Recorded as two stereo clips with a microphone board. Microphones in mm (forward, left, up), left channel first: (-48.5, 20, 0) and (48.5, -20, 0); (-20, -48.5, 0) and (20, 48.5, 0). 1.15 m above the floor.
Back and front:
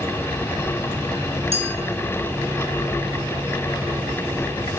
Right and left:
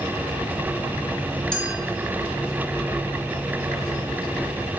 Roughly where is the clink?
Ahead right.